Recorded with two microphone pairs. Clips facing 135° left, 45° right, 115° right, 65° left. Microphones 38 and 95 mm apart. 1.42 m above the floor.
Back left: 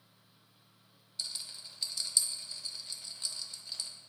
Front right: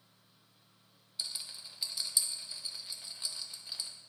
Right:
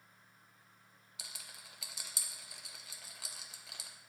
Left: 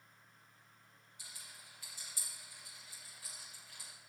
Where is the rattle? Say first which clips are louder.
Even, right 3 dB; 120° right, 1.0 m.